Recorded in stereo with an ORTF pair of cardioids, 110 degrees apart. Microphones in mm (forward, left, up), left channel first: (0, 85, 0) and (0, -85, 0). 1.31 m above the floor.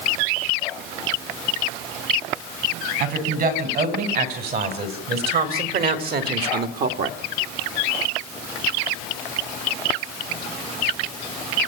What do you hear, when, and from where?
3.0 s a woman speaking: 65° right, 6 m; by 7.2 s 70° right, 1.8 m